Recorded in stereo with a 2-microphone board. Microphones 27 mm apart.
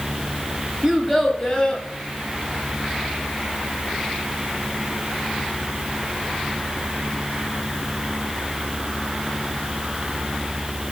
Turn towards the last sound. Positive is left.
turn(degrees=30)  # may be behind; listen again after turning